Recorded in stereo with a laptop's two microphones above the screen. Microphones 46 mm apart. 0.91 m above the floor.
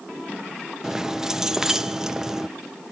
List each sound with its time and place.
0.8 s keys jangling: 10° right (ahead or behind), 0.5 m